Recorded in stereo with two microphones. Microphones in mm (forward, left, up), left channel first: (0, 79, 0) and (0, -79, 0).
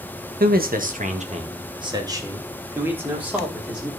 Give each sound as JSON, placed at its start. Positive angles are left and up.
{"t": 0.4, "sound": "a man speaking", "side_deg": -65, "distance_m": 1.4}